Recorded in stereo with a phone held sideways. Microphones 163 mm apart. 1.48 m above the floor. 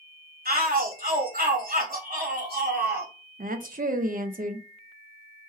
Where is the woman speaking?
60° right (ahead or behind), 0.5 m.